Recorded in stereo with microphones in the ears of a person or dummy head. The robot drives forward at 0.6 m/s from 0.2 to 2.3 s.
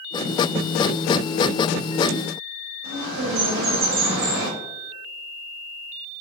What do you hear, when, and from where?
2.8 s a bird: 65° right (ahead or behind), 0.8 m